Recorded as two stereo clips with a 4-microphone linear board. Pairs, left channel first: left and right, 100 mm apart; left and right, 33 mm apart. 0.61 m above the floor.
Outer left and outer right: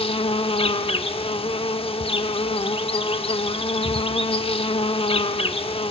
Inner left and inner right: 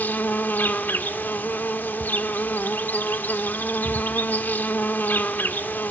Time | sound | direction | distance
0.0 | an insect | 70° left (ahead or behind) | 0.8 m